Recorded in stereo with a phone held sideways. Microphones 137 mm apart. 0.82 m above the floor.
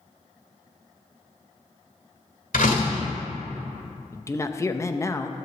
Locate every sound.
2.5 s a door slam: 85° left, 1.9 m
4.1 s a man speaking: 20° left (ahead or behind), 0.6 m